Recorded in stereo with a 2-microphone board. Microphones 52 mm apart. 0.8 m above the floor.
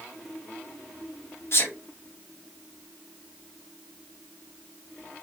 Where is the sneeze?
50° left (ahead or behind), 1.0 m.